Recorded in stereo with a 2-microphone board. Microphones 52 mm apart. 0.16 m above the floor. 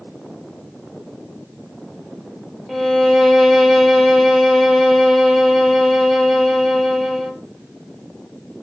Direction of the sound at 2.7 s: 5° right (ahead or behind).